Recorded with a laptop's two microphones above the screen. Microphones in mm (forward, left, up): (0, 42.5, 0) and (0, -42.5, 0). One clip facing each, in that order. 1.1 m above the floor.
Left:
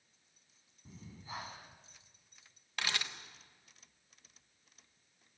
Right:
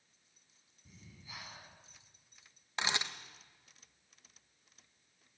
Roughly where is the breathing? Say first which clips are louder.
Left 7 dB; left.